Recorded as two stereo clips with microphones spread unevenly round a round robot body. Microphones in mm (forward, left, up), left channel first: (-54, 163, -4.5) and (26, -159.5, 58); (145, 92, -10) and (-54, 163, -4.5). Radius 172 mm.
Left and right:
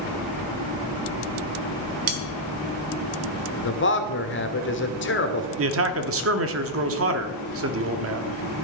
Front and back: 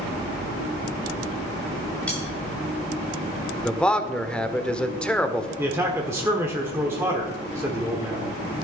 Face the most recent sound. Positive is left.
turn(degrees=-120)